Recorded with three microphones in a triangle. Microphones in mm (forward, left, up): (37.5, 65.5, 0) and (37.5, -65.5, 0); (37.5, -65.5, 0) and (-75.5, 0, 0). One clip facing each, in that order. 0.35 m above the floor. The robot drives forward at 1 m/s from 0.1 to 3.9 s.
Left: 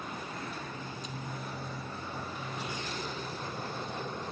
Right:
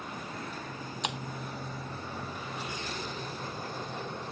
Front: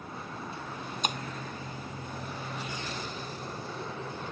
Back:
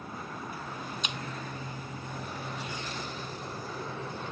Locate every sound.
1.0 s breaking glass: 75° right